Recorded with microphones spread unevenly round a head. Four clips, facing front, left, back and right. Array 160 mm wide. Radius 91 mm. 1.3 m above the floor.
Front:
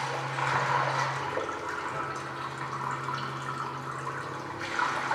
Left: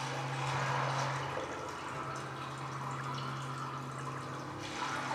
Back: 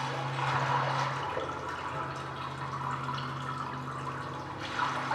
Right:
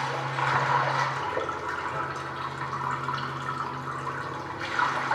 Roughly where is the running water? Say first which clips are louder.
Right 10 dB, front 2 dB; ahead right.